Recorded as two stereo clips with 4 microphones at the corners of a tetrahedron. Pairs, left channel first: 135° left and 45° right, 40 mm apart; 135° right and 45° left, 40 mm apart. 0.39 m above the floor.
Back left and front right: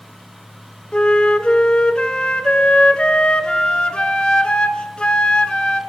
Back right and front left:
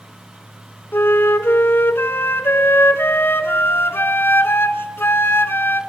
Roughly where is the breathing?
No breathing in this recording.